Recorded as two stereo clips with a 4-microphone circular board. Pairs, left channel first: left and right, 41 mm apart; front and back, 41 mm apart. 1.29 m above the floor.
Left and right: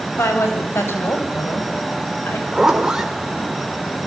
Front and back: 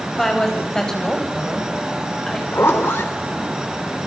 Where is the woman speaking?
80° left, 7 m; by 2.4 s 75° left, 8.5 m.